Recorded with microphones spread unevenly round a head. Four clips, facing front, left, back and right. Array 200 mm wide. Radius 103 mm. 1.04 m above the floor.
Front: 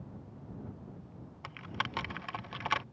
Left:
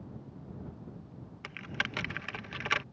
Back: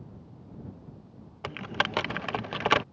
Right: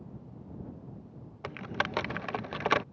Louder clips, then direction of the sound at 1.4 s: Right 5 dB, back 8 dB; 160° right.